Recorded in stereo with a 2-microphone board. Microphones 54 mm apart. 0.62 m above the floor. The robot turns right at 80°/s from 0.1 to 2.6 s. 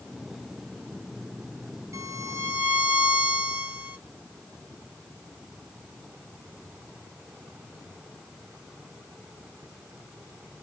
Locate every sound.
1.9 s a violin: 85° right, 1.5 m; by 4.0 s 35° right, 1.5 m